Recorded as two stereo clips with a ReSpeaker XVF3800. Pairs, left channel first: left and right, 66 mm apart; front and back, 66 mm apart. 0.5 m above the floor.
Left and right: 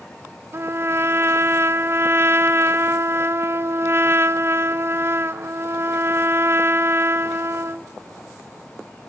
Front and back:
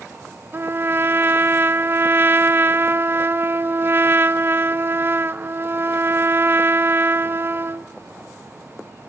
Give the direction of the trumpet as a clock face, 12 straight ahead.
4 o'clock.